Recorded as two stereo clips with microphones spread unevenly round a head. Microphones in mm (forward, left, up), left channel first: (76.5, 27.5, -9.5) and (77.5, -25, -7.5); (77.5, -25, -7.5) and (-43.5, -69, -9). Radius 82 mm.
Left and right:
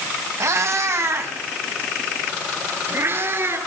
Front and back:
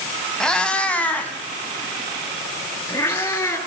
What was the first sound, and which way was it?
A cat meowing, 65° right.